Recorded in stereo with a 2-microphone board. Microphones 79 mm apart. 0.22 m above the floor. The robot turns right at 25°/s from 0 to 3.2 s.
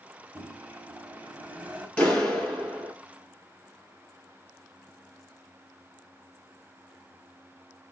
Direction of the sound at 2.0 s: 15° left (ahead or behind).